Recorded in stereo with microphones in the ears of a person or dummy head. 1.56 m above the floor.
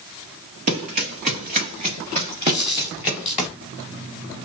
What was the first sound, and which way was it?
Running footsteps, 35° right (ahead or behind).